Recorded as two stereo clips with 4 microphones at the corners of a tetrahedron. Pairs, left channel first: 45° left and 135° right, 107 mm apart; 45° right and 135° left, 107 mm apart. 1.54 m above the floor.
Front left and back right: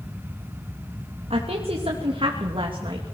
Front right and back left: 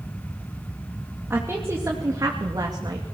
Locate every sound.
1.3 s a woman speaking: 155° right, 3 m; by 3.1 s 175° right, 3 m